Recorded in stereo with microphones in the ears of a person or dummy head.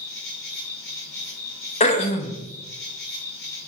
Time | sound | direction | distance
0.0 | an insect | 5° left (ahead or behind) | 1.3 m
1.8 | throat clearing | 30° left (ahead or behind) | 0.5 m